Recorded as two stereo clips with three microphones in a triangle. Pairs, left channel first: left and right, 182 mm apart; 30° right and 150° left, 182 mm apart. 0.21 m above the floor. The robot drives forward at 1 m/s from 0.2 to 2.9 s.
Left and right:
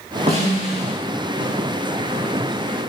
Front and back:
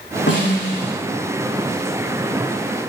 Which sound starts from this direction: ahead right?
A snare drum, at 0.3 s.